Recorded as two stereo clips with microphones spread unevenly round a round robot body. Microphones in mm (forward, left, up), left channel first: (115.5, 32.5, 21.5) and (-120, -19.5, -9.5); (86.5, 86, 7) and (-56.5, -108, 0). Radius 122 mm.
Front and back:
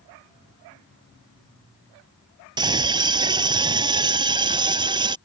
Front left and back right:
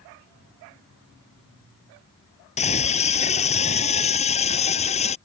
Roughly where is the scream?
Behind left.